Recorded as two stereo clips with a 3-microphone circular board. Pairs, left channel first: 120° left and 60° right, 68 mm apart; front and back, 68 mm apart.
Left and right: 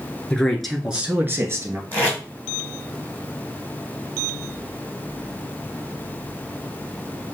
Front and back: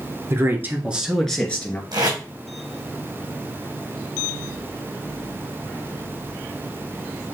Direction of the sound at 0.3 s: 170° right.